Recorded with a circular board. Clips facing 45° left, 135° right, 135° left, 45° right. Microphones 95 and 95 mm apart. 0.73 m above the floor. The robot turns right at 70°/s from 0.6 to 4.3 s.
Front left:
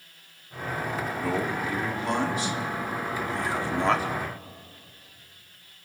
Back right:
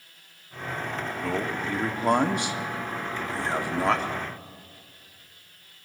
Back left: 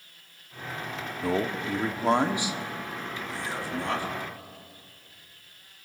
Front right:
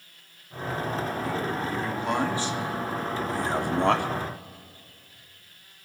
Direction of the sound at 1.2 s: 125° left.